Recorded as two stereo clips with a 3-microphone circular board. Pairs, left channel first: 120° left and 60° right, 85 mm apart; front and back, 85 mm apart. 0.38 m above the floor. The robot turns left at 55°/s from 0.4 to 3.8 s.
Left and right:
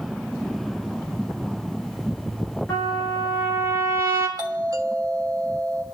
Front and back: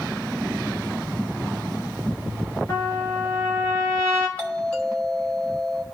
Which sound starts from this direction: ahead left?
A trumpet, at 2.7 s.